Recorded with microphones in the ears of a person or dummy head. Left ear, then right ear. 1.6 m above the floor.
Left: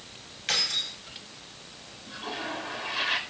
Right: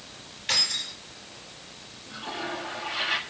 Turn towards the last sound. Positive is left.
turn(degrees=80)